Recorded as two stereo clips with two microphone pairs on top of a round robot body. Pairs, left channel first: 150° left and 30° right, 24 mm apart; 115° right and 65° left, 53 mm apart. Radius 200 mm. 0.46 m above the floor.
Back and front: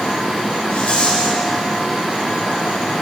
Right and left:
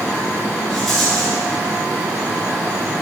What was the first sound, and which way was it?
A rattle, 165° left.